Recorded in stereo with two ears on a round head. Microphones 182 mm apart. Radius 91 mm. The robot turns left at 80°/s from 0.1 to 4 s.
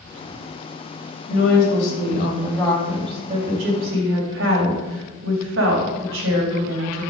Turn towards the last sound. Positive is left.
turn(degrees=-100)